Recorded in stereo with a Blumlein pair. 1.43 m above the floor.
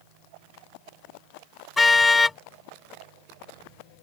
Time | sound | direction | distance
1.8 | a car horn | 10° left | ?